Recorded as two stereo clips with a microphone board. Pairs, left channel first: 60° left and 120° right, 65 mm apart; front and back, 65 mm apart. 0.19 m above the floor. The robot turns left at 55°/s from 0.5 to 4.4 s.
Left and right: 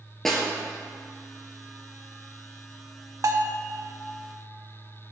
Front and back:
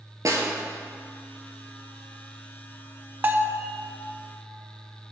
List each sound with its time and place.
0.2 s a snare drum: 145° left, 1.8 m
3.2 s a bell: 125° right, 0.6 m; by 3.6 s 150° right, 0.6 m